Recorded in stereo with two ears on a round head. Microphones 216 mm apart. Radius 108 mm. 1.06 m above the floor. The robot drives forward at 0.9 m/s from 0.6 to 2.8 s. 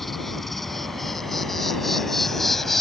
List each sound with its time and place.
0.0 s an insect: centre (ahead or behind)